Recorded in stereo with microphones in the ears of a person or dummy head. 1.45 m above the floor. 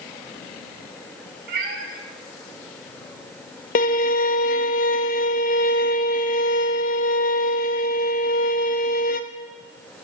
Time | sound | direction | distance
1.5 | a cat meowing | 60° right (ahead or behind) | 2.5 m
3.8 | a violin | 45° left (ahead or behind) | 0.6 m